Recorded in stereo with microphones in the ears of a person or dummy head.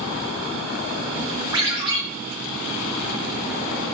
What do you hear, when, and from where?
1.5 s a ringtone: 20° right (ahead or behind), 0.9 m